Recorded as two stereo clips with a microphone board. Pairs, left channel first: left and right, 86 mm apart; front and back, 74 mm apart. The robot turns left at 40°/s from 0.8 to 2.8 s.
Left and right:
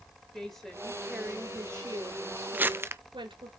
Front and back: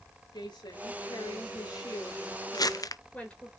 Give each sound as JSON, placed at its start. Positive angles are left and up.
{"t": 0.3, "sound": "a woman speaking", "azimuth_deg": 5, "distance_m": 7.5}
{"t": 2.5, "sound": "crumpling", "azimuth_deg": -20, "distance_m": 0.7}